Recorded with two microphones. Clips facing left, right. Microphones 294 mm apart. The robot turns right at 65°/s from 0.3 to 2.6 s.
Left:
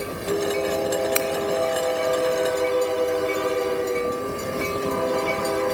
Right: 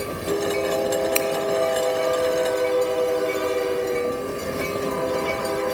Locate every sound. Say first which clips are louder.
1.1 s scissors: right 1 dB; 15° left (ahead or behind), 1.5 m; by 1.3 s 25° left (ahead or behind), 1.5 m